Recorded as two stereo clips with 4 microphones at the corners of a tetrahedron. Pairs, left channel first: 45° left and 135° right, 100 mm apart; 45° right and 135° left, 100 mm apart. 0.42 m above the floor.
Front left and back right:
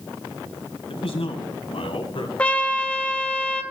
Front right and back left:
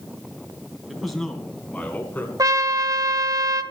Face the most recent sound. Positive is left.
turn(degrees=115)